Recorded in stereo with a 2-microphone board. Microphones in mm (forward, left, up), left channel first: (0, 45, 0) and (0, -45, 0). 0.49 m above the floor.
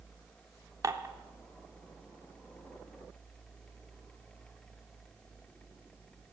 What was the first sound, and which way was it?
Dishes clattering, 40° right (ahead or behind).